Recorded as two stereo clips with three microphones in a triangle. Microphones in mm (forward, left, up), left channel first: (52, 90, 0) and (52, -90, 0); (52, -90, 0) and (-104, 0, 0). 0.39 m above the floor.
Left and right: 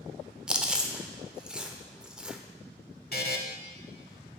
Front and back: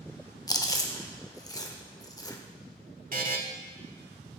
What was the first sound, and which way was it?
Chewing, 10° right.